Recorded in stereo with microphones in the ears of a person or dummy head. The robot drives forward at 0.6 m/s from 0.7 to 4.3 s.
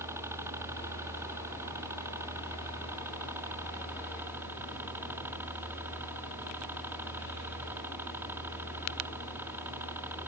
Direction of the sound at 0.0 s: 15° right (ahead or behind).